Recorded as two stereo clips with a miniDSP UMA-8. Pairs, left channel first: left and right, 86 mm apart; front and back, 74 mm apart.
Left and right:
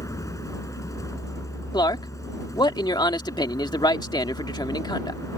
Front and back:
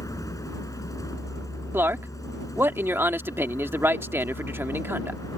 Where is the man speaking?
125° left.